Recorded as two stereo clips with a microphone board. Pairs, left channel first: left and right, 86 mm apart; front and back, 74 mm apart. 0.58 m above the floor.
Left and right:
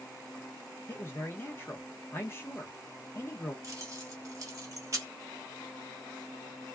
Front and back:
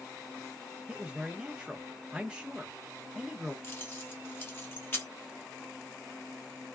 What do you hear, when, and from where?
0.9 s a man speaking: 110° left, 0.7 m
3.6 s keys jangling: 55° right, 0.9 m